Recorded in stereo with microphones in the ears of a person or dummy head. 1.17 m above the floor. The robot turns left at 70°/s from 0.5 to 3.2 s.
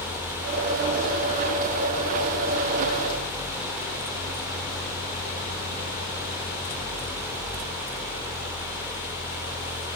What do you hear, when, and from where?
Only background noise.